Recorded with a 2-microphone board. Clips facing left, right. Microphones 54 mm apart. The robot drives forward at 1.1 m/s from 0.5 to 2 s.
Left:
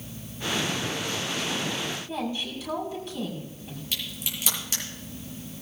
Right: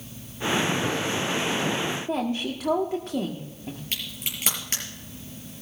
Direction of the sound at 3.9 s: 40° right (ahead or behind).